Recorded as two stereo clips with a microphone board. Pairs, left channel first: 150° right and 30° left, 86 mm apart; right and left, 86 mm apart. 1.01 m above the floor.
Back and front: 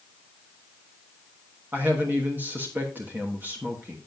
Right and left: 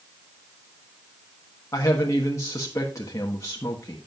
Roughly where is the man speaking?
Ahead right.